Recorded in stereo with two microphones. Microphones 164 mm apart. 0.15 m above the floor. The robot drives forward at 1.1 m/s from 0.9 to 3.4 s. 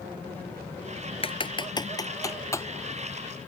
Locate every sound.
1.2 s typing on a keyboard: 35° left (ahead or behind); by 2.6 s 15° left (ahead or behind)